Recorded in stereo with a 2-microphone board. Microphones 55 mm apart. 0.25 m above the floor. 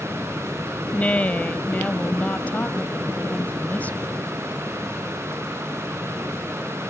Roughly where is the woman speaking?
Left.